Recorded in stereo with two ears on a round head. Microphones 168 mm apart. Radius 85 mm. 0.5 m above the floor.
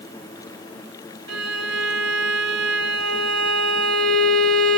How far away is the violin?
About 1.2 m.